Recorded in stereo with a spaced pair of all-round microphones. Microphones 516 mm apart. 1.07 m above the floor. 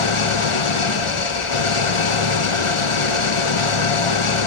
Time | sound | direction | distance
0.0 | an engine running | 70° left (ahead or behind) | 0.8 m